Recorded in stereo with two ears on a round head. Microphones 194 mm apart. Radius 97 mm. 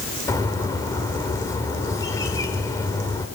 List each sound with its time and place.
0.3 s a bird: 15° left (ahead or behind), 2 m